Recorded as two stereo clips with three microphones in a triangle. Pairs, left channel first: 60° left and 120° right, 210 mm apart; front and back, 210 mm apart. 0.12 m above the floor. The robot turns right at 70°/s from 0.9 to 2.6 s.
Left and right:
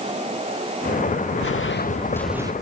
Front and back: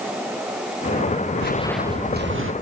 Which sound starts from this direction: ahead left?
Footsteps, at 1.4 s.